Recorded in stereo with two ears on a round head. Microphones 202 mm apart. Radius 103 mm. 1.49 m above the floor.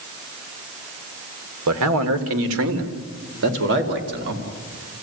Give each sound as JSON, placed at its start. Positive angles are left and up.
{"t": 1.7, "sound": "a man speaking", "side_deg": -80, "distance_m": 2.0}